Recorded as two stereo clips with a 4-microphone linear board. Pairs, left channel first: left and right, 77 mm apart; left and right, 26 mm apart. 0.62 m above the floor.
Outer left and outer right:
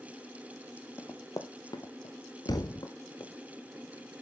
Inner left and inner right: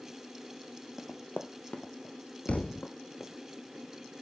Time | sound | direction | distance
1.0 | running footsteps | 35° left (ahead or behind) | 0.8 m
2.5 | a thud | 60° left (ahead or behind) | 1.0 m